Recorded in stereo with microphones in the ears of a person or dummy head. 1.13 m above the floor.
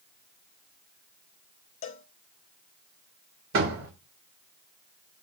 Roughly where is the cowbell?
Left.